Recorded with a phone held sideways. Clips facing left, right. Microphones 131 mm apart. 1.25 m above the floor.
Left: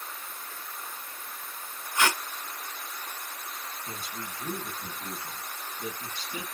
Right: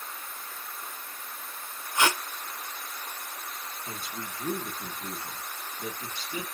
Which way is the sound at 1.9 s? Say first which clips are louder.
Right 1 dB; 20° right (ahead or behind).